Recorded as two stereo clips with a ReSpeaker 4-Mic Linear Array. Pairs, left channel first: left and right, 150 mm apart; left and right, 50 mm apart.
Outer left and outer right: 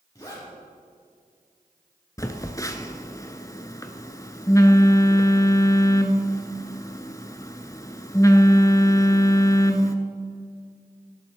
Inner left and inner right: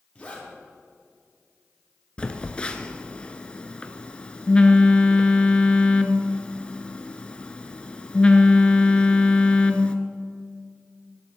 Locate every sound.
0.1 s a zipper: 25° left (ahead or behind), 4 m
2.2 s a phone buzzing: 20° left (ahead or behind), 0.7 m